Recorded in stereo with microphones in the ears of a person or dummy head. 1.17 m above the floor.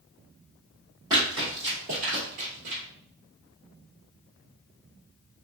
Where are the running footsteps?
25° right (ahead or behind), 1.7 m; by 2.8 s 45° right (ahead or behind), 1.6 m.